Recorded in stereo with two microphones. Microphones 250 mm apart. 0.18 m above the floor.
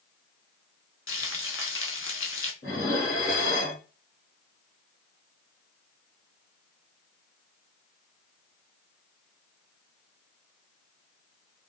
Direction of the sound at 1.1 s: 60° left (ahead or behind).